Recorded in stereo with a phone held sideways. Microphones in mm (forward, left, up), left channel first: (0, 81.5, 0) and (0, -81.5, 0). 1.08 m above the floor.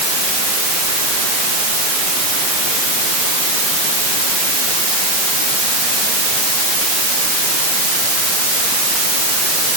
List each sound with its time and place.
Only background noise.